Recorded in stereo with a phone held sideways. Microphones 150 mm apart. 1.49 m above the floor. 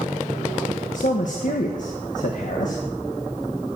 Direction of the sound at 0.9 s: 60° left (ahead or behind).